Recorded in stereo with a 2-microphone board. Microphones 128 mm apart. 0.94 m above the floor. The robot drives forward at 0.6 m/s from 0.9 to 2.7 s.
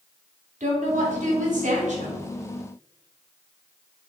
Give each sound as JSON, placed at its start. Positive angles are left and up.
{"t": 0.6, "sound": "a woman speaking", "side_deg": -85, "distance_m": 1.8}